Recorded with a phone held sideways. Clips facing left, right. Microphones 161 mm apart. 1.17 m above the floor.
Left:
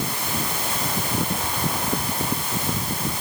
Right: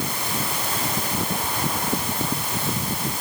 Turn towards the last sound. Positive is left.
No sound to turn to.